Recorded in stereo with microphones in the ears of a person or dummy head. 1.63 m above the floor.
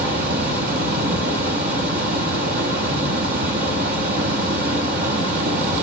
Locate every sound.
0.0 s a fan: 50° right (ahead or behind), 1.0 m